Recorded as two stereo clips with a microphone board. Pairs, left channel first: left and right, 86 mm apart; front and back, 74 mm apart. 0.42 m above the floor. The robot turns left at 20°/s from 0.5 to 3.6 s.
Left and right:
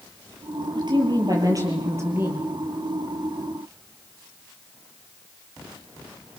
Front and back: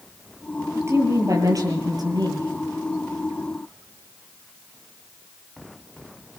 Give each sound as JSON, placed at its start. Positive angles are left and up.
{"t": 0.8, "sound": "a woman speaking", "azimuth_deg": -125, "distance_m": 8.0}